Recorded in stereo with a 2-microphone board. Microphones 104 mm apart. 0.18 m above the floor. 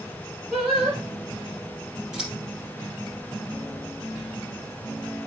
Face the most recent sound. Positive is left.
turn(degrees=-5)  # may be behind; listen again after turning